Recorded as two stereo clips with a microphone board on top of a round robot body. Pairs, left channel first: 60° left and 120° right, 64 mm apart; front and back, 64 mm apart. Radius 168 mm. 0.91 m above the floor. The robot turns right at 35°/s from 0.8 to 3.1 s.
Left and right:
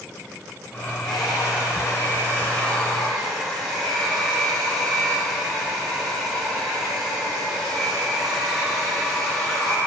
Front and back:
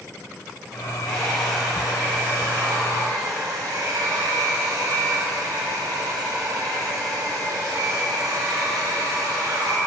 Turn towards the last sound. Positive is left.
turn(degrees=145)